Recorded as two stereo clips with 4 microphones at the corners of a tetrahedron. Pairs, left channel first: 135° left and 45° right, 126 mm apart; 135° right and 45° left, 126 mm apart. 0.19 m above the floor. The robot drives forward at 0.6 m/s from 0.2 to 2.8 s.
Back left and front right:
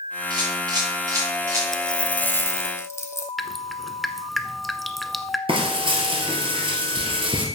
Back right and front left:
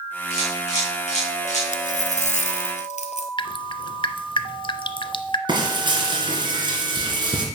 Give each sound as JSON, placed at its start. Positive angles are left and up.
{"t": 0.3, "sound": "a camera shutter", "azimuth_deg": -100, "distance_m": 4.0}
{"t": 1.7, "sound": "a dropped coin", "azimuth_deg": -135, "distance_m": 0.8}
{"t": 3.4, "sound": "dripping", "azimuth_deg": -135, "distance_m": 0.6}
{"t": 5.5, "sound": "frying", "azimuth_deg": -5, "distance_m": 2.5}